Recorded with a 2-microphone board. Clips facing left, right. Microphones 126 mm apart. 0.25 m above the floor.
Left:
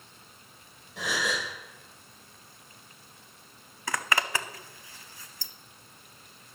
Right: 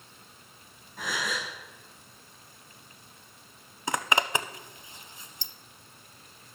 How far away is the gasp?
About 4.5 m.